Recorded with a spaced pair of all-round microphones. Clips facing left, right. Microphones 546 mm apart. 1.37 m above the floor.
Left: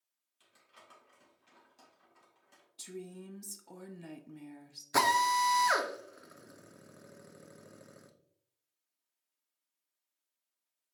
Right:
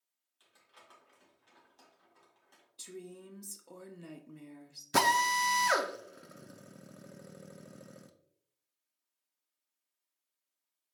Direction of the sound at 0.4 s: 50° left (ahead or behind).